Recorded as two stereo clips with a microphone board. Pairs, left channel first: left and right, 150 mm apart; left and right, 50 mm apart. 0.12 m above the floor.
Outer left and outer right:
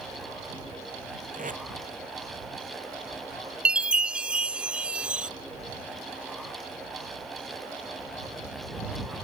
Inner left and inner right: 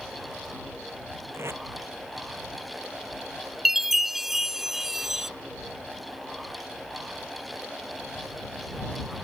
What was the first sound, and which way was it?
Tape being pulled, 60° right (ahead or behind).